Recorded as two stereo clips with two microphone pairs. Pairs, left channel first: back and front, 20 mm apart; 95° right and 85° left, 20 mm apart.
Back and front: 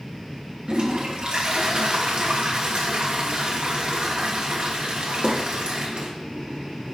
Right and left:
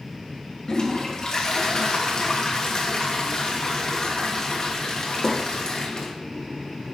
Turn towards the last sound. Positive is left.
turn(degrees=-40)